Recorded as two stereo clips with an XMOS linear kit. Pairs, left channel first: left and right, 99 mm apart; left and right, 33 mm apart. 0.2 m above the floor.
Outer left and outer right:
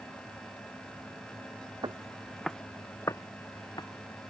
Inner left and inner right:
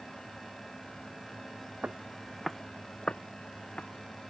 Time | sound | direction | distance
1.8 | footsteps | 50° right (ahead or behind) | ?